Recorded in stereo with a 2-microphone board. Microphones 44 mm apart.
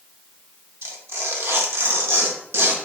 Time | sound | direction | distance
0.8 | tearing paper | 65° right (ahead or behind) | 0.7 m